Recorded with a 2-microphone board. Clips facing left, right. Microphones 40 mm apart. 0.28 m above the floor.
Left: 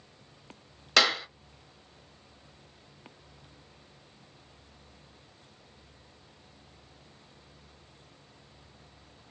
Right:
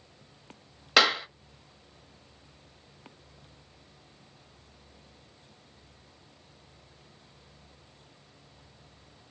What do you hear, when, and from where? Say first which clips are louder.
1.0 s a clap: right 2 dB; 10° right (ahead or behind), 0.7 m